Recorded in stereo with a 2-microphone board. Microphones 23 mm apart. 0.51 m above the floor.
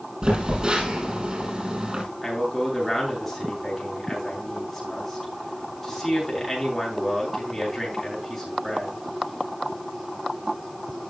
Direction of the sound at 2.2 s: 5° left (ahead or behind).